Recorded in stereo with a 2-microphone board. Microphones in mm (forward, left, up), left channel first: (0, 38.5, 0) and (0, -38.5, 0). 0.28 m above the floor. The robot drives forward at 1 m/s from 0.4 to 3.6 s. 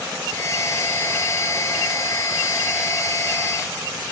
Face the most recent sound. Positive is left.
No sound to turn to.